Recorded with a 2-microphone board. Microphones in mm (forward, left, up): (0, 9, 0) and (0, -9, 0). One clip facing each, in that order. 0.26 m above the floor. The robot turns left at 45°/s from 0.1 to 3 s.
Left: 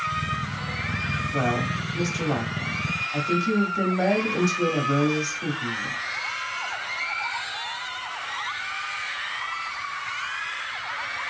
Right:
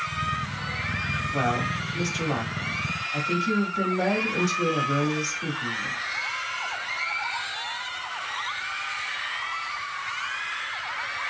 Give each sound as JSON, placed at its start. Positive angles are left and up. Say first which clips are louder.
{"t": 1.3, "sound": "a woman speaking", "louder": "even", "side_deg": 0, "distance_m": 1.1}